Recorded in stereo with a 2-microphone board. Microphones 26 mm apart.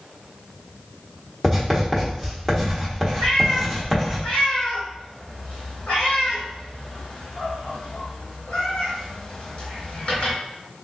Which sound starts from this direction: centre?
Writing, at 1.4 s.